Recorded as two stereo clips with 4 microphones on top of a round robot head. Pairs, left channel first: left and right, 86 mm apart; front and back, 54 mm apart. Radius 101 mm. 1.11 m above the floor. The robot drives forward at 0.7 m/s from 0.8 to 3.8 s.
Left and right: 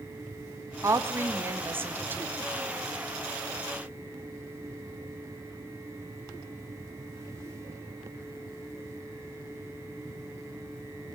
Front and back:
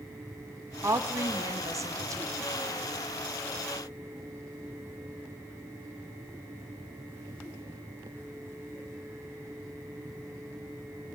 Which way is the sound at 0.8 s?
145° right.